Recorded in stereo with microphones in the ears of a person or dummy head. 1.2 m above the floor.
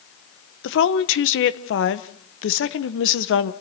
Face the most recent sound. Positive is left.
turn(degrees=60)  # may be behind; listen again after turning